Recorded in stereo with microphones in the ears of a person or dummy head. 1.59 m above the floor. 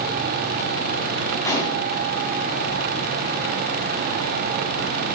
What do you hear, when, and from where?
1.4 s a gunshot: 15° left (ahead or behind), 2.5 m